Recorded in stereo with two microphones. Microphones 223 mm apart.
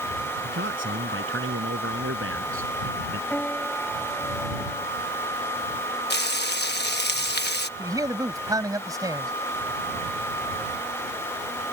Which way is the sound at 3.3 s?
5° left (ahead or behind).